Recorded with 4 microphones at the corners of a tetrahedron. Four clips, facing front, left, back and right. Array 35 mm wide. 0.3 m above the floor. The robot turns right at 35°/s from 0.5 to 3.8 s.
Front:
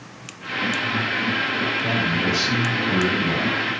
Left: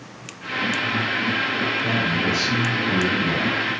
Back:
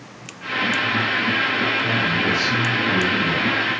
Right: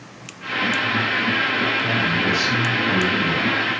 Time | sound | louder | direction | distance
1.8 | a man speaking | right 2 dB, back 2 dB | 15° right | 3 m